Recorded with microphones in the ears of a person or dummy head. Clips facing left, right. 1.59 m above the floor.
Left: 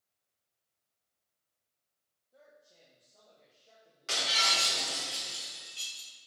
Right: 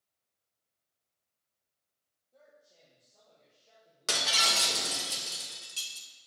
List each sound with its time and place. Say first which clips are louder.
2.3 s a man speaking: left 1 dB; 10° left (ahead or behind), 1.4 m
4.1 s breaking glass: right 2 dB; 60° right (ahead or behind), 1.3 m